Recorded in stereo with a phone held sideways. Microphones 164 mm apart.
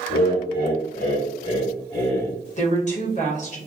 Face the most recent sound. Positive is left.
turn(degrees=45)  # may be behind; listen again after turning